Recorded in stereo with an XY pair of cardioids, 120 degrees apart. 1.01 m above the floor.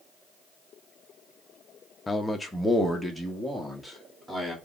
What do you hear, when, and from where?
2.1 s a man speaking: 10° left, 0.6 m; by 4.5 s 10° right, 1.9 m